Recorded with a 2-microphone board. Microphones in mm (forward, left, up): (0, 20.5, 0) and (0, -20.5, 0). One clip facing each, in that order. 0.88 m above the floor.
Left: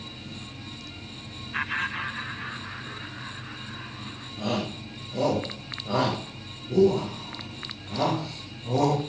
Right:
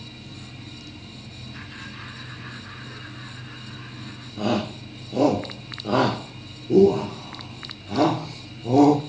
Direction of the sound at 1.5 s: 45° left (ahead or behind).